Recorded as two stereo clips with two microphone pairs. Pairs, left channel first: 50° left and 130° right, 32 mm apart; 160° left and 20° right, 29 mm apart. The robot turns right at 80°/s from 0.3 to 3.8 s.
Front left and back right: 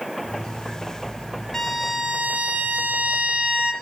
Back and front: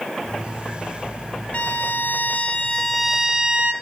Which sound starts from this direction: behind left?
A violin, at 1.5 s.